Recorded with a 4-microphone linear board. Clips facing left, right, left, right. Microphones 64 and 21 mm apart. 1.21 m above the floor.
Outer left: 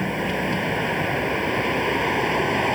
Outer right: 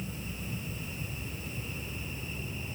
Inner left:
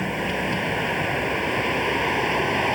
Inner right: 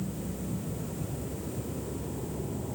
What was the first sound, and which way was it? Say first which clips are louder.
A vehicle: outer left 17 dB, inner left 12 dB; 85° left.